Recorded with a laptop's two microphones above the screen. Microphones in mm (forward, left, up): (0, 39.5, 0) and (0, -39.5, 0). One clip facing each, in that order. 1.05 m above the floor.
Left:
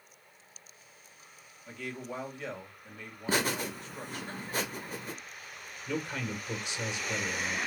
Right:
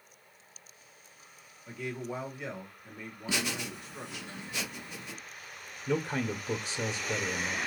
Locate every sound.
1.7 s a man speaking: 15° right (ahead or behind), 1.3 m
3.3 s laughter: 40° left (ahead or behind), 0.7 m
5.9 s a man speaking: 35° right (ahead or behind), 1.6 m